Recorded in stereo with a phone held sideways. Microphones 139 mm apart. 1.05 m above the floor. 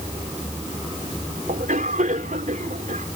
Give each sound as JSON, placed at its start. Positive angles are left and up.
{"t": 1.5, "sound": "a cough", "side_deg": -70}